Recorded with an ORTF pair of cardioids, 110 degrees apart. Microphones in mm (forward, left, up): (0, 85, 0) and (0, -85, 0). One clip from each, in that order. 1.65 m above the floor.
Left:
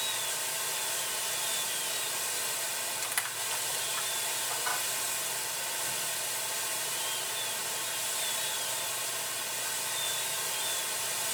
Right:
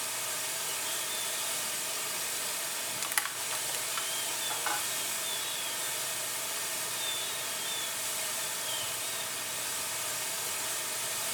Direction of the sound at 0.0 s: Straight ahead.